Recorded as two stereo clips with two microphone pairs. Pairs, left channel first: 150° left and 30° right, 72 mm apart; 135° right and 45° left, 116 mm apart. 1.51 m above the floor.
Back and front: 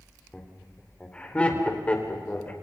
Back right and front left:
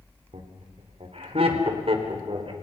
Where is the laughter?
70° left, 4 m; by 2.5 s 80° left, 5.5 m.